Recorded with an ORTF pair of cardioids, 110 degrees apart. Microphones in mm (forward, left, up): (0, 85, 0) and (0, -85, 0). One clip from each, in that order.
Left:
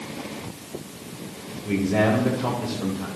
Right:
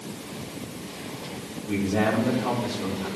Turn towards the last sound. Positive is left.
turn(degrees=60)